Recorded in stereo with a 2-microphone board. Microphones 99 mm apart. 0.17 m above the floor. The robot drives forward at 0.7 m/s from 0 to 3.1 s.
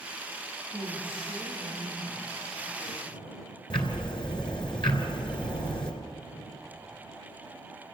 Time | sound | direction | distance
0.7 | a woman speaking | 15° right (ahead or behind) | 9 m
3.7 | ticking | 55° left (ahead or behind) | 2.5 m